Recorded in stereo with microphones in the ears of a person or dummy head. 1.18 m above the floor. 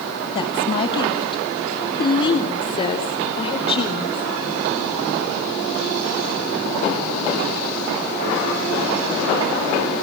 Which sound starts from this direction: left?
A woman speaking, at 0.3 s.